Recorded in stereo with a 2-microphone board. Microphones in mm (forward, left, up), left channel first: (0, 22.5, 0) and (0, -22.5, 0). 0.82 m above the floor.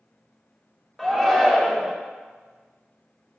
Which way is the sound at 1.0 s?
10° left (ahead or behind).